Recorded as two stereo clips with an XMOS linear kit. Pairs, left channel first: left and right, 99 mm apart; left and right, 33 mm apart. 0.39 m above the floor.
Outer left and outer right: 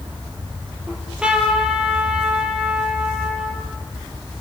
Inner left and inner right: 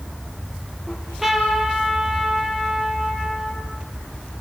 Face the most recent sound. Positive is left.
turn(degrees=-10)  # may be behind; listen again after turning